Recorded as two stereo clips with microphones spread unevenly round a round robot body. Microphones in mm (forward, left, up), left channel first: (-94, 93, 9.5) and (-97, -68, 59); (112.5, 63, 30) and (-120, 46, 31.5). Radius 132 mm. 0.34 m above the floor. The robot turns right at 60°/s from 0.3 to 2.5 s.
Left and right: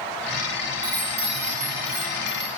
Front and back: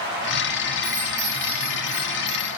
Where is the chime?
140° right, 2 m; by 2.5 s 40° right, 2 m.